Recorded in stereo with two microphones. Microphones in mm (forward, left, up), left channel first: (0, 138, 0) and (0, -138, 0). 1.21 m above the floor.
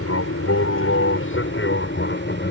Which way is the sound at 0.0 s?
55° left (ahead or behind).